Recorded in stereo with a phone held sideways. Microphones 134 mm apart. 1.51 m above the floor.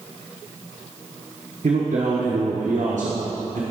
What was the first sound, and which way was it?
A man speaking, 75° right (ahead or behind).